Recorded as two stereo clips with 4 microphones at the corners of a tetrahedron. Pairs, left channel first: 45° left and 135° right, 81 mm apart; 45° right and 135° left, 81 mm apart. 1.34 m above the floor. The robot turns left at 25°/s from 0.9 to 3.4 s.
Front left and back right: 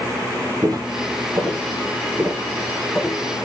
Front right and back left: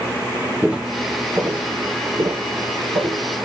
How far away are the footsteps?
About 2 m.